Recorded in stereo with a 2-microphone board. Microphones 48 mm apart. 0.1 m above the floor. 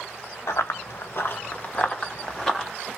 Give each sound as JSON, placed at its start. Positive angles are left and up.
{"t": 0.5, "sound": "running footsteps", "side_deg": 90, "distance_m": 1.2}